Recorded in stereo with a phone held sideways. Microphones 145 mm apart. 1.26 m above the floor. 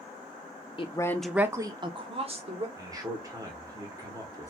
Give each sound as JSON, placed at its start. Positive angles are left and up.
{"t": 0.8, "sound": "a woman speaking", "side_deg": 35, "distance_m": 0.6}
{"t": 2.8, "sound": "a man speaking", "side_deg": -25, "distance_m": 1.4}